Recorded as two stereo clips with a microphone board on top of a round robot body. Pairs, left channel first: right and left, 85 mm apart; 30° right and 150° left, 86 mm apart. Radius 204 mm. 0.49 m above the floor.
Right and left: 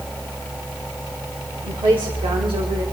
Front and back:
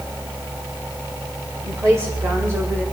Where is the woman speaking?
95° left, 2.5 m; by 2.8 s 85° left, 2 m.